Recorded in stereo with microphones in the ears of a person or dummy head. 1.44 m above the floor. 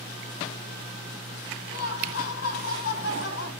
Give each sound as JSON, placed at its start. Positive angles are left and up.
{"t": 1.7, "sound": "laughter", "side_deg": 65, "distance_m": 1.3}